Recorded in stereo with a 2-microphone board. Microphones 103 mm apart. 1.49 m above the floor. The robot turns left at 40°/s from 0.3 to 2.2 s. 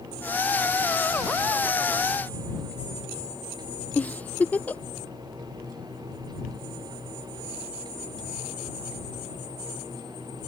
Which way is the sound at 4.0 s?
15° left (ahead or behind).